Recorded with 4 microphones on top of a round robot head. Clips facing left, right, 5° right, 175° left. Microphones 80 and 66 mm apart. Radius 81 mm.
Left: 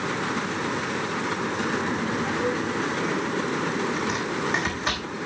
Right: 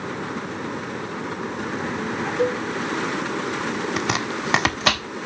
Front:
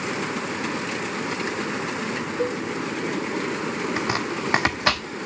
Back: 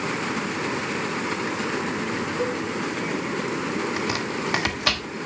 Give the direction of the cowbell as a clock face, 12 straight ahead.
3 o'clock.